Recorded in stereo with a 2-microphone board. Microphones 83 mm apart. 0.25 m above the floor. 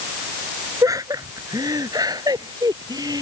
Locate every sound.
0.8 s laughter: 50° right (ahead or behind); by 3.2 s 55° right (ahead or behind)